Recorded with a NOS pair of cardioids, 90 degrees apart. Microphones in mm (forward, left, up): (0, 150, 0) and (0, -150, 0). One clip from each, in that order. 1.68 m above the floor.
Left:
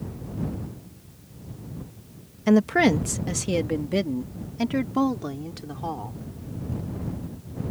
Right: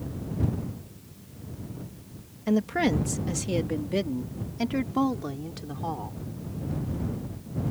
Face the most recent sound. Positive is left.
turn(degrees=15)